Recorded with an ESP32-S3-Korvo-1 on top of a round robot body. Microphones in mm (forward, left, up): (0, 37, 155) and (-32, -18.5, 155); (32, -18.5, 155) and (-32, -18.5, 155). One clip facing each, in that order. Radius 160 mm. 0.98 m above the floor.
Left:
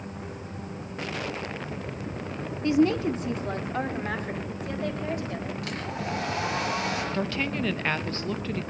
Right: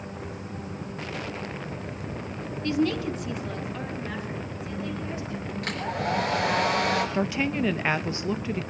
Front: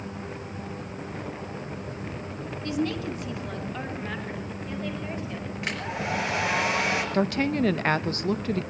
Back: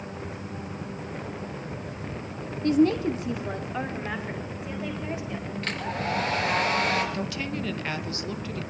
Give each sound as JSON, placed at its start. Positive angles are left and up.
{"t": 2.6, "sound": "a woman speaking", "azimuth_deg": 130, "distance_m": 1.4}
{"t": 5.6, "sound": "a hair dryer", "azimuth_deg": -75, "distance_m": 4.5}
{"t": 7.1, "sound": "a woman speaking", "azimuth_deg": -45, "distance_m": 0.9}